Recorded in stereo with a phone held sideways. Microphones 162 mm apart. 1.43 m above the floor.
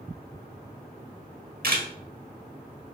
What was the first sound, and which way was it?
A camera shutter, 65° right (ahead or behind).